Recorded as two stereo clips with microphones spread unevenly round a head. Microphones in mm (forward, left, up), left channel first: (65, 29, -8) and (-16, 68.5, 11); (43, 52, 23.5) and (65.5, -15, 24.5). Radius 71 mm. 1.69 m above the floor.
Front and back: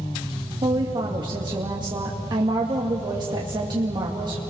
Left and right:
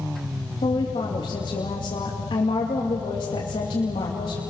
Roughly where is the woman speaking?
Behind left.